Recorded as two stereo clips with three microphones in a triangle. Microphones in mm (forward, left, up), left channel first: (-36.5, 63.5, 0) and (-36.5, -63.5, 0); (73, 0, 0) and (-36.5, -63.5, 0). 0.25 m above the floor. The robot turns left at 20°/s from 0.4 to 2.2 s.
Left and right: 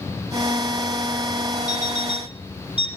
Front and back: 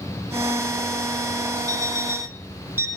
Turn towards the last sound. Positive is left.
turn(degrees=140)